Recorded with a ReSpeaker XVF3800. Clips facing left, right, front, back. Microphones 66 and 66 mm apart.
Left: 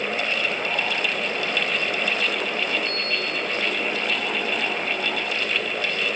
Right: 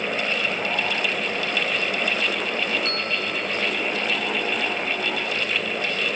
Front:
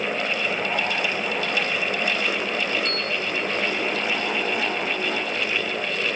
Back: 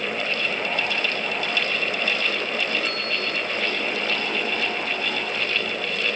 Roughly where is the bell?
Right.